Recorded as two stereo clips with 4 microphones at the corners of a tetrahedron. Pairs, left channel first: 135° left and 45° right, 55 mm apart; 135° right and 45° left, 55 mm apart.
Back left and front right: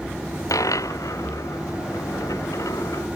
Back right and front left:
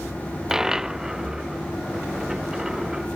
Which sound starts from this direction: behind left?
A dropped coin, at 0.5 s.